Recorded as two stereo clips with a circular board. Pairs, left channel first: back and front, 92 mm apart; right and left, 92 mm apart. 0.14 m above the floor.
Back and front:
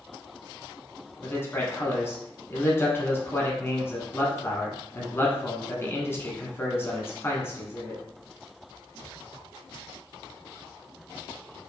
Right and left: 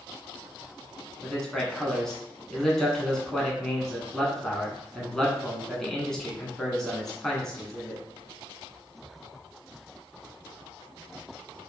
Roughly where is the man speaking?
Behind.